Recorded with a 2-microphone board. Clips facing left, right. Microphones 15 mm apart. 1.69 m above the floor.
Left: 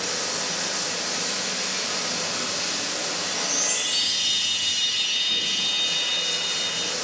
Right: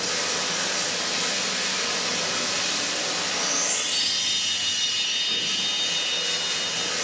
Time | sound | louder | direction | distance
0.0 | running water | right 1 dB | 40° right (ahead or behind) | 6 m
3.2 | a chime | even | 5° left (ahead or behind) | 0.7 m